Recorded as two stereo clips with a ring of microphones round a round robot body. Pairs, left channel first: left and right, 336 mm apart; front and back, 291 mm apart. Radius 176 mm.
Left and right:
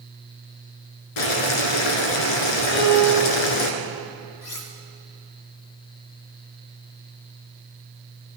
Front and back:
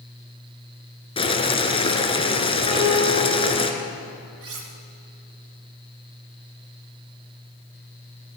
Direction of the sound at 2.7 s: 150° left.